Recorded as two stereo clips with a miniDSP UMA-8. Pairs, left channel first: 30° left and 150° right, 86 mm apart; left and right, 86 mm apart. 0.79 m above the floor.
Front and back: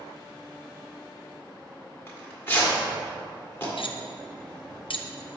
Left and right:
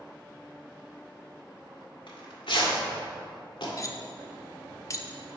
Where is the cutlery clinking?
40° left, 0.5 m.